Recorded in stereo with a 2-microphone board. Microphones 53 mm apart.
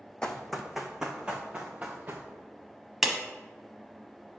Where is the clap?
5° right (ahead or behind), 0.9 m.